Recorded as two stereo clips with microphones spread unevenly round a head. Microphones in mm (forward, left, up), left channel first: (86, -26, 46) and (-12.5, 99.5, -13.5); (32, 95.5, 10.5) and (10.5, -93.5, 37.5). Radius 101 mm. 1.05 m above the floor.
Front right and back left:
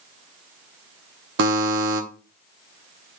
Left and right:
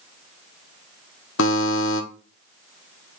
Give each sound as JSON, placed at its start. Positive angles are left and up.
{"t": 1.4, "sound": "a buzzer", "azimuth_deg": 115, "distance_m": 1.0}